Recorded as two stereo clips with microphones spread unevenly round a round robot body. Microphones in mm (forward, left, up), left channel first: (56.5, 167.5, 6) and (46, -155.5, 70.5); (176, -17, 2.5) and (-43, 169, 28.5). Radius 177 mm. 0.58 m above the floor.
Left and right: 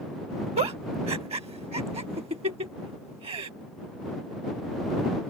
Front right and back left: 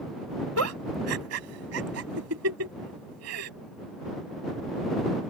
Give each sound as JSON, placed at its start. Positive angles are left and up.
{"t": 0.6, "sound": "a giggle", "azimuth_deg": -165}